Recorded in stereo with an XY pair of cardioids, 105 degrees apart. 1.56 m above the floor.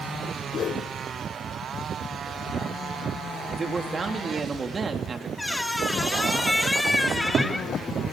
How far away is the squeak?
About 2.5 m.